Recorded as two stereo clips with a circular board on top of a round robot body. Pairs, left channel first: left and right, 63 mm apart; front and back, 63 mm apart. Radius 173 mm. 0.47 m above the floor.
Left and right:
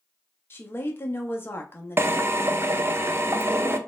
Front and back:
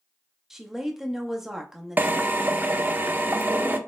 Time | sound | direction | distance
0.5 | a woman speaking | 100° left | 0.9 m
2.0 | a drill | 130° right | 0.6 m